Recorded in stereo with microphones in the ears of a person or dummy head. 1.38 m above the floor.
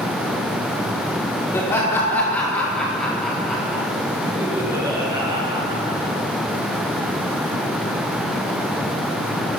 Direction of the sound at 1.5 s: 20° left (ahead or behind).